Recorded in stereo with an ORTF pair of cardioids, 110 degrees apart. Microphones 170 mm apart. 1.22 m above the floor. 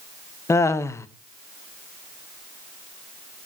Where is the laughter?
15° left, 0.7 m.